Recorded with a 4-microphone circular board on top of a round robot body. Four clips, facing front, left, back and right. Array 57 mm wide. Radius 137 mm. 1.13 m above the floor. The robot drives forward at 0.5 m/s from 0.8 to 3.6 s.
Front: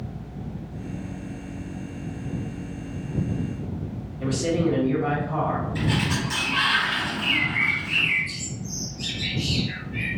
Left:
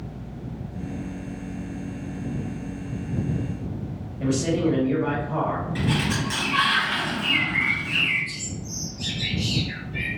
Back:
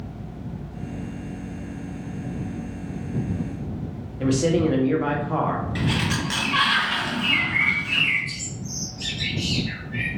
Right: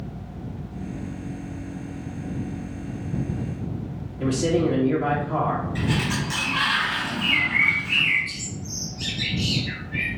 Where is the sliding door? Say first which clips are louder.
Even, back 1 dB; 165° left, 1.7 m.